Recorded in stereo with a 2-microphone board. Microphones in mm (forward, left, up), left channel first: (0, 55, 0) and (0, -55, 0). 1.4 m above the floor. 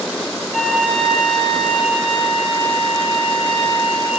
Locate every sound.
0.5 s a flute: 5° left (ahead or behind), 1.6 m